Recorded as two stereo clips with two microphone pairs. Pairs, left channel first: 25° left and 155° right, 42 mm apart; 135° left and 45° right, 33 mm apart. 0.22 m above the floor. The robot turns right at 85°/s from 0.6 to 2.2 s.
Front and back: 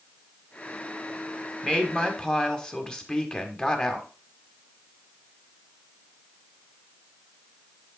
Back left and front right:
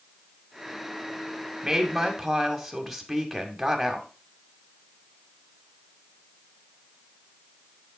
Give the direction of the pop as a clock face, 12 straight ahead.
I don't hear a pop.